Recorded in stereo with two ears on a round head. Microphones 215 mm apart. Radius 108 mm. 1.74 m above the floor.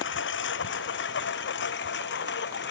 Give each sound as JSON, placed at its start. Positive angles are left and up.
{"t": 0.0, "sound": "a lawn mower", "side_deg": 50}